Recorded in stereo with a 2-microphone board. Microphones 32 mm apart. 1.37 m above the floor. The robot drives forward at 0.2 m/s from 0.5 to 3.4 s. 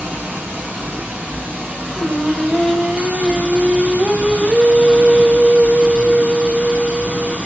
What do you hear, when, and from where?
0.0 s running water: 80° right, 2.5 m; by 7.5 s 65° right (ahead or behind), 2.5 m
1.9 s singing: 50° right (ahead or behind), 3 m; by 7.4 s 45° right (ahead or behind), 3 m